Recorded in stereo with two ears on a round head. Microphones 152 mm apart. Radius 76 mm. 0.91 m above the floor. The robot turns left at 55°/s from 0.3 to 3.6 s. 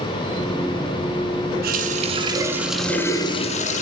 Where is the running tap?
120° right, 7 m; by 3.8 s 135° left, 7 m.